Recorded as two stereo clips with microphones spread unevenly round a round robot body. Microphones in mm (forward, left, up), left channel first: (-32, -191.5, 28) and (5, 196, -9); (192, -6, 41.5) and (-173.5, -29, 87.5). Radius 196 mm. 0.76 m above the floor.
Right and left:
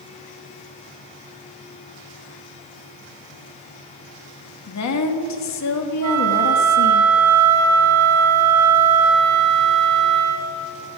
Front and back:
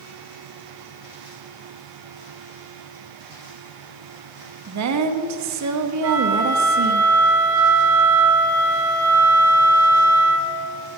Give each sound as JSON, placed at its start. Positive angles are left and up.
{"t": 4.7, "sound": "a woman speaking", "azimuth_deg": -140, "distance_m": 1.5}
{"t": 6.0, "sound": "a flute", "azimuth_deg": 130, "distance_m": 1.9}